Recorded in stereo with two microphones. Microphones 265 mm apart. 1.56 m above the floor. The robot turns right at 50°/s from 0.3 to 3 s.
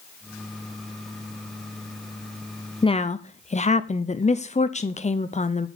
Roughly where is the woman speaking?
Centre.